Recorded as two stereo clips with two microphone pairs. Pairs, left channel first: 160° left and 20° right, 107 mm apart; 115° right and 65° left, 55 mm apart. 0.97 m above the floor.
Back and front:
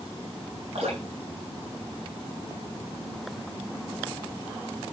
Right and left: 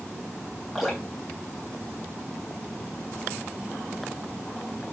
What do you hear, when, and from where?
0.8 s dripping: 25° right, 6.5 m